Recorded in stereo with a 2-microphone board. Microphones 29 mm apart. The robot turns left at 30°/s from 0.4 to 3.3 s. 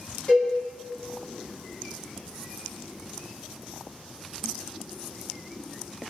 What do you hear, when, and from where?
0.3 s a cowbell: 50° left (ahead or behind), 1.4 m